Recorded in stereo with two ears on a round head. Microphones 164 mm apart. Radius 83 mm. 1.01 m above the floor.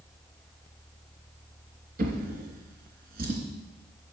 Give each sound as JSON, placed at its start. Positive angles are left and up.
{"t": 2.0, "sound": "a drawer", "side_deg": -50, "distance_m": 3.0}